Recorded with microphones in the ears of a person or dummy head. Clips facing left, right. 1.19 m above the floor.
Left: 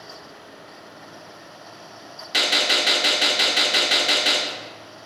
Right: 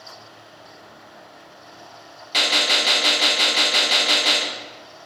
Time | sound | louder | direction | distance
2.3 | a gunshot | even | 15° left (ahead or behind) | 0.5 m